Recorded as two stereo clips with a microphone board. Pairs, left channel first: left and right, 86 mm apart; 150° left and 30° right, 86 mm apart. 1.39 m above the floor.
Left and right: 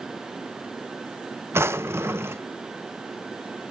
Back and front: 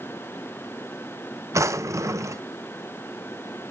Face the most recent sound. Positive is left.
turn(degrees=-50)